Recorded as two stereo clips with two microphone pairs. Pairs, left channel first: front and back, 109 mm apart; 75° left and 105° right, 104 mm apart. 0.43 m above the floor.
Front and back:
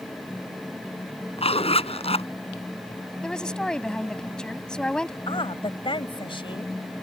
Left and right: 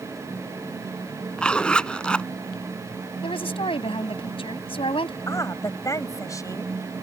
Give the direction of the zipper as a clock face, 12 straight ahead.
12 o'clock.